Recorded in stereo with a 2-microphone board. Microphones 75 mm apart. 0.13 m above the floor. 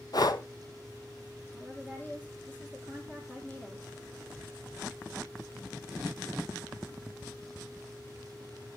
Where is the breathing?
60° left (ahead or behind), 0.6 m.